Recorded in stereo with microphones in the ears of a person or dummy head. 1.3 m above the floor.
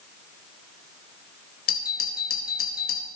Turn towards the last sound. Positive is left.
turn(degrees=45)  # may be behind; listen again after turning